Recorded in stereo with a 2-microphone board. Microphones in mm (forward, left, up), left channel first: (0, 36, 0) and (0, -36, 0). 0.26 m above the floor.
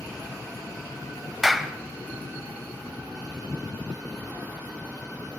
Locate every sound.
1.4 s a clap: centre (ahead or behind), 1.1 m